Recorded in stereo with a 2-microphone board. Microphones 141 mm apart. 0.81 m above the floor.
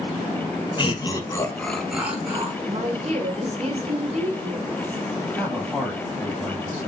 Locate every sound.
0.8 s laughter: 35° left (ahead or behind), 1.2 m; by 2.5 s 20° right (ahead or behind), 1.2 m
2.6 s a woman speaking: 50° right (ahead or behind), 1.5 m
5.4 s a man speaking: 5° left (ahead or behind), 3 m